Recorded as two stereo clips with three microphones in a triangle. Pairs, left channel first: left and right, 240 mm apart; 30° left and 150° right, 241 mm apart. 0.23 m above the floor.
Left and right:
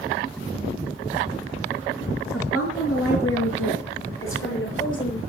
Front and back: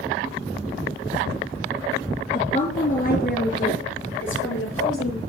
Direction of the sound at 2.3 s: 95° left.